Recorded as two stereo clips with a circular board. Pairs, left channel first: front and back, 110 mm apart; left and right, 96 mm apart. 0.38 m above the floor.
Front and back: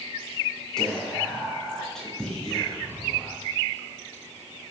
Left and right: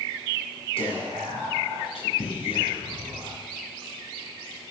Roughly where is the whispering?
Left.